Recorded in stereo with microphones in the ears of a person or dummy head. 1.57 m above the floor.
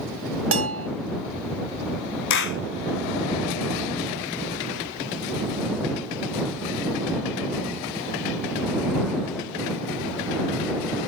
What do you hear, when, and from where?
0.5 s a bell: 75° right (ahead or behind)
2.3 s a clap: 65° left (ahead or behind)